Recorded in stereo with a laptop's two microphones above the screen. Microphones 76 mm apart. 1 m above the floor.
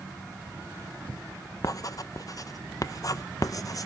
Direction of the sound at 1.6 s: 50° left (ahead or behind).